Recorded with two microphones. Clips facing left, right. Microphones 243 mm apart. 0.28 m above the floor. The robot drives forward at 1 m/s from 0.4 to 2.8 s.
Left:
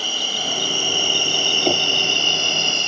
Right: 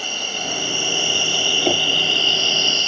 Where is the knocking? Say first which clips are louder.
Even; centre (ahead or behind).